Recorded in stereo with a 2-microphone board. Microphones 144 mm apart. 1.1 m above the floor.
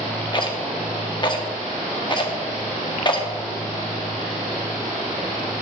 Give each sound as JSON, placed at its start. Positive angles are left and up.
{"t": 0.3, "sound": "a rattle", "side_deg": 30, "distance_m": 0.9}